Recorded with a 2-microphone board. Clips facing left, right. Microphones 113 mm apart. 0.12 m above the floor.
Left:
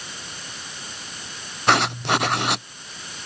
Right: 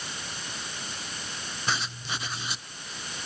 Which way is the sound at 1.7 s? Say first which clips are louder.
Left 14 dB; 65° left (ahead or behind).